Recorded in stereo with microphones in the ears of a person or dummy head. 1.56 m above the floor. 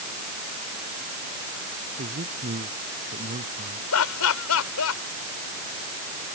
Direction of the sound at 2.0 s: 40° right (ahead or behind).